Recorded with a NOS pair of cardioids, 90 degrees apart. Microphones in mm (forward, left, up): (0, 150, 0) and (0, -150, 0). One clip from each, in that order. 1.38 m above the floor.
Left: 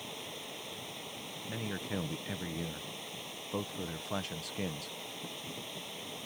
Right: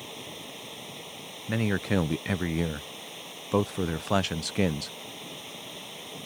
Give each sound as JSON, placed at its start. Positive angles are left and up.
{"t": 0.0, "sound": "running water", "azimuth_deg": -20}
{"t": 1.5, "sound": "a man speaking", "azimuth_deg": -60}